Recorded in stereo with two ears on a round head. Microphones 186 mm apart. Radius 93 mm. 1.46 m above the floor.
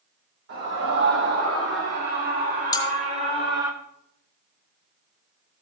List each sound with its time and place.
0.5 s a scream: 65° right (ahead or behind), 4 m; by 3.7 s 15° right (ahead or behind), 1.4 m
2.7 s cutlery clinking: 20° left (ahead or behind), 2 m